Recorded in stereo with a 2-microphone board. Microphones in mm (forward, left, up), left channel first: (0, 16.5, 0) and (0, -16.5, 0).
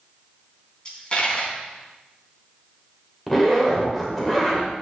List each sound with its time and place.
0.8 s a dropped coin: 25° left (ahead or behind), 3.5 m
3.3 s a zipper: 10° left (ahead or behind), 2.5 m